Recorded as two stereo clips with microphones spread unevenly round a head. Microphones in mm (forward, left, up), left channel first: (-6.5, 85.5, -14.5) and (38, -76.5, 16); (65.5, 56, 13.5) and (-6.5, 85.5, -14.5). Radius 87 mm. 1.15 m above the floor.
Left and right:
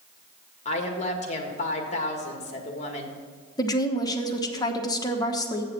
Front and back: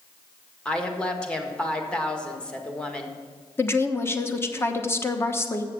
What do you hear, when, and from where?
0.7 s a woman speaking: 60° left, 1.7 m
3.6 s a woman speaking: 45° left, 1.2 m